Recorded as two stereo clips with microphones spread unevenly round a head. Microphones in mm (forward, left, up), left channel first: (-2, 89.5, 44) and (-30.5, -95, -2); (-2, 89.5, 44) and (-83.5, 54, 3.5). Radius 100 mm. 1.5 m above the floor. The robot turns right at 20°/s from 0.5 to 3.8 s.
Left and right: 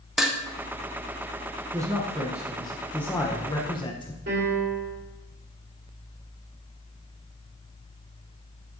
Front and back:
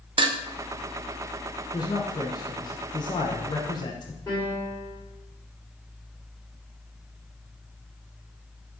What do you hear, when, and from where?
0.2 s dishes clattering: 155° left, 0.6 m
1.7 s a man speaking: 20° right, 0.8 m; by 4.2 s 25° left, 0.8 m
4.3 s a piano: 50° right, 3 m